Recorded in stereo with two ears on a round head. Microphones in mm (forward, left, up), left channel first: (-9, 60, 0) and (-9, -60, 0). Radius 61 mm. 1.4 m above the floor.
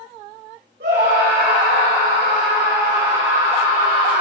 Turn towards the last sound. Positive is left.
turn(degrees=-80)